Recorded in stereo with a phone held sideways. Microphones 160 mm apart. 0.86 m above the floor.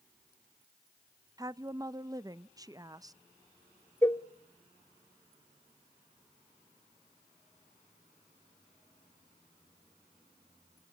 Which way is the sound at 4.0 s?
15° left (ahead or behind).